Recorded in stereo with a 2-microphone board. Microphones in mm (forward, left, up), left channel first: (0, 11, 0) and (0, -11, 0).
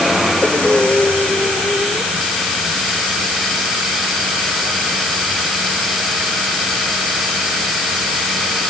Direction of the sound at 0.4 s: 65° left (ahead or behind).